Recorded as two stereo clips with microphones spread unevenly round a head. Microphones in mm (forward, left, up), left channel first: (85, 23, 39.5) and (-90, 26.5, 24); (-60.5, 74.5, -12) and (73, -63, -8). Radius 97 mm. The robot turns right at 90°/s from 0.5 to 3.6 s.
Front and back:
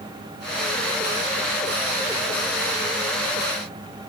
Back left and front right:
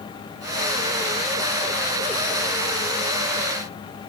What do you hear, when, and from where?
Only background noise.